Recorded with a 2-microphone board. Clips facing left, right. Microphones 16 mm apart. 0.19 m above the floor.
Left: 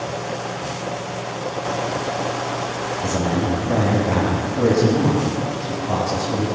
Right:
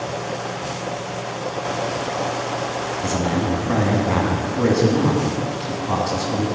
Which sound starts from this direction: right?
A man speaking, at 3.0 s.